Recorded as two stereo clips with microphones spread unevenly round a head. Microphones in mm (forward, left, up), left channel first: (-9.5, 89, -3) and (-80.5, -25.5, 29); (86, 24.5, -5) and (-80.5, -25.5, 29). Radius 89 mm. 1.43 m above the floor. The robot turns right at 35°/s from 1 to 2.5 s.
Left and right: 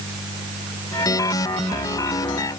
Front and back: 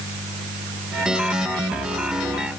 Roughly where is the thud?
I don't hear a thud.